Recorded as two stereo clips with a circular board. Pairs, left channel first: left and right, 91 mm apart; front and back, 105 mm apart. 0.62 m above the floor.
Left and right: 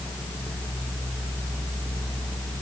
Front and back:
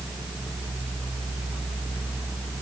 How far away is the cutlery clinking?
I don't hear cutlery clinking.